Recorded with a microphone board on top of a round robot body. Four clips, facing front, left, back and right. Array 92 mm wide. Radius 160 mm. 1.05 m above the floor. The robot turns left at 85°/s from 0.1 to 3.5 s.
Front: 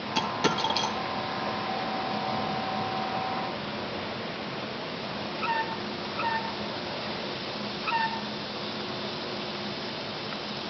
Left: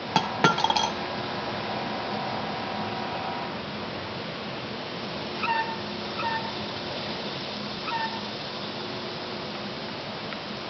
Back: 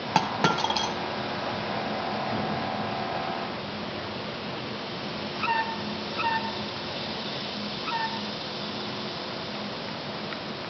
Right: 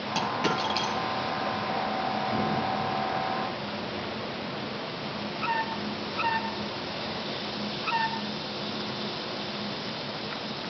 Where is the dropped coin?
145° left, 2 m; by 0.9 s 75° left, 2 m.